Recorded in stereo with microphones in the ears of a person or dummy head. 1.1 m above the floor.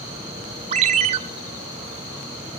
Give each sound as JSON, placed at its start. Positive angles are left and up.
{"t": 0.7, "sound": "a ringtone", "side_deg": -35, "distance_m": 0.8}